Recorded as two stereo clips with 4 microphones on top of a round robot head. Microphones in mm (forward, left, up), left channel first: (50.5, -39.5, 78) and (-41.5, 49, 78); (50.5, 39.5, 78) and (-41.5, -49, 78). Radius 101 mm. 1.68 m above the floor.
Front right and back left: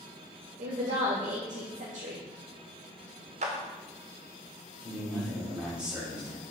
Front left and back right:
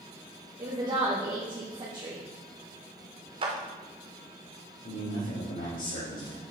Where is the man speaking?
55° left, 4 m.